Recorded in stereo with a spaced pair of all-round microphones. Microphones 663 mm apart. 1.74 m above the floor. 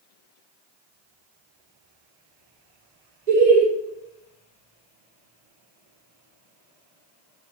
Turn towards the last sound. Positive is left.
turn(degrees=-80)